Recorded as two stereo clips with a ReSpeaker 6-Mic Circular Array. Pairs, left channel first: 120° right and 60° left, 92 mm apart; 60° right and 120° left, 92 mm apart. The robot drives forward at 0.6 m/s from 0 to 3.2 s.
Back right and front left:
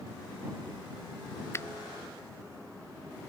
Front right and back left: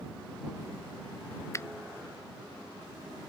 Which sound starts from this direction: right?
A finger snap, at 1.5 s.